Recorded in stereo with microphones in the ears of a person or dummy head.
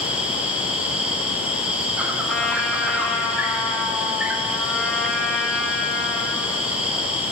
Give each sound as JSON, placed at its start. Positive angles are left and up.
{"t": 0.0, "sound": "an insect", "side_deg": -5, "distance_m": 1.0}
{"t": 2.3, "sound": "a trumpet", "side_deg": 5, "distance_m": 1.3}